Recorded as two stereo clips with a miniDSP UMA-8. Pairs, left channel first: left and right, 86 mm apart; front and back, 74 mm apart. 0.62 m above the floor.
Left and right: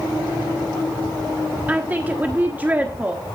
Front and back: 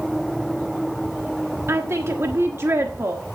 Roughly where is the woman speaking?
Behind right.